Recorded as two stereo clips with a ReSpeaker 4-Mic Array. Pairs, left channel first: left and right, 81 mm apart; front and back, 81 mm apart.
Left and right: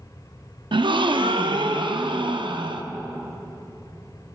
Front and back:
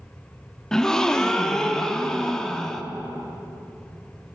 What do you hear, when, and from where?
0.7 s a gasp: 85° right, 0.6 m